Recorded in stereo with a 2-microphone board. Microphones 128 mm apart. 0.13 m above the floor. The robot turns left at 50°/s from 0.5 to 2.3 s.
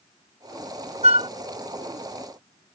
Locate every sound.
1.0 s a flute: 55° right (ahead or behind); by 1.3 s 45° right (ahead or behind)